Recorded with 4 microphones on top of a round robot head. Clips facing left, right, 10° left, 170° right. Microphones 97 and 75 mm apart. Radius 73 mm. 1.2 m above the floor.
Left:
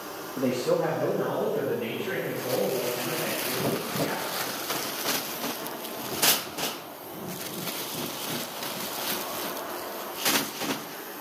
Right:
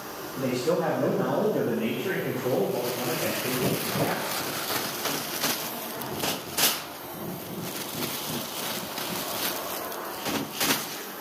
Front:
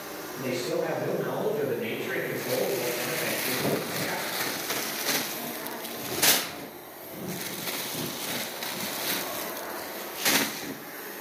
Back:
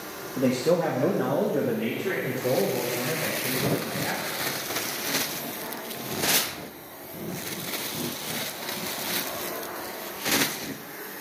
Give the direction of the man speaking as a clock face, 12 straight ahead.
6 o'clock.